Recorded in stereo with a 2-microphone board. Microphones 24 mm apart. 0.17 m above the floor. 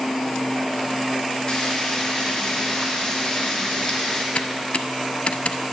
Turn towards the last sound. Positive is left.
turn(degrees=65)  # may be behind; listen again after turning